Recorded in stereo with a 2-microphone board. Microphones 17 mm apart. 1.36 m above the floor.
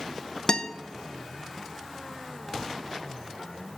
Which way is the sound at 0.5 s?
35° left (ahead or behind).